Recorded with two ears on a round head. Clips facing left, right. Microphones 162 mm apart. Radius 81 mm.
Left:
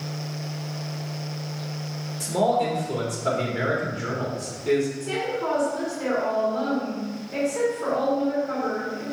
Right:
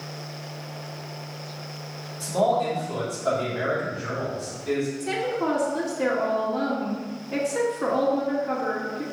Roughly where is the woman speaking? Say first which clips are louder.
Right 1 dB; right.